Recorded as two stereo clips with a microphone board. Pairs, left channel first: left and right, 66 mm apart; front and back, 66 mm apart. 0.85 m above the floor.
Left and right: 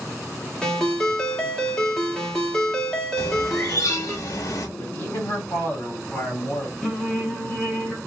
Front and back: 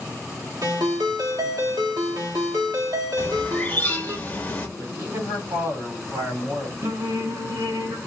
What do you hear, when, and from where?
0.6 s a ringtone: 165° left, 1.3 m
3.2 s a bird: 60° left, 1.0 m
4.8 s a man speaking: 145° left, 2 m
6.8 s singing: 170° left, 1.2 m